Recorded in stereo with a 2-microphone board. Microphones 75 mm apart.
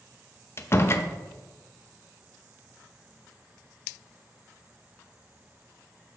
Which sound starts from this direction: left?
A door slam, at 0.6 s.